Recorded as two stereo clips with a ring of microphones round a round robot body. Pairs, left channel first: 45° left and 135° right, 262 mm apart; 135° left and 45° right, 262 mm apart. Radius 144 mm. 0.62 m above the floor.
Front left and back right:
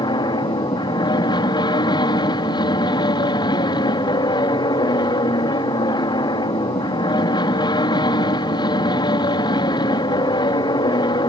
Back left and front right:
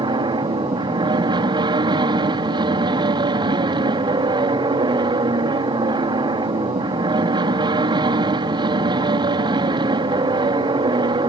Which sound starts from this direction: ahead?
An aircraft, at 0.0 s.